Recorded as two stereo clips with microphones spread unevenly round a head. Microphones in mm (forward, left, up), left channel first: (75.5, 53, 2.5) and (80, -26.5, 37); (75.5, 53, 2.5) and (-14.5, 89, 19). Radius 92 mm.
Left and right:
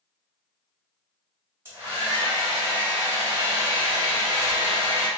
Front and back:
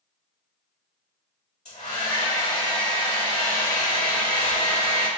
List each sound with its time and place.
1.6 s a hair dryer: 40° right, 1.9 m